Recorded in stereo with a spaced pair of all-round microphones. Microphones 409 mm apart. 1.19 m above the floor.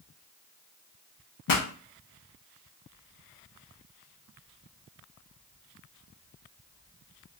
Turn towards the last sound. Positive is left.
turn(degrees=55)  # may be behind; listen again after turning